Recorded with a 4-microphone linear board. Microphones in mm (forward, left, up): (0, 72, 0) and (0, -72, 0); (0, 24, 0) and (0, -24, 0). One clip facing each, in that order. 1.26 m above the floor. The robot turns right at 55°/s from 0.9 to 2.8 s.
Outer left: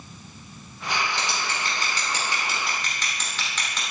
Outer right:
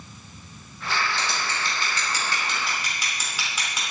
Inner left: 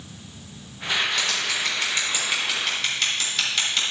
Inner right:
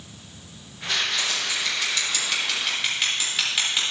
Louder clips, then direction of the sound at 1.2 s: Even, inner left 2 dB; 80° left.